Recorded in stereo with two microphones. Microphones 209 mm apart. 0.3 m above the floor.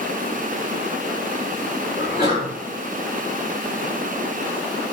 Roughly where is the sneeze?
Left.